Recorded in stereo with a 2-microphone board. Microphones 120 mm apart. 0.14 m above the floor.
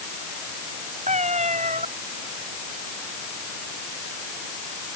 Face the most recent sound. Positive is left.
turn(degrees=-70)  # may be behind; listen again after turning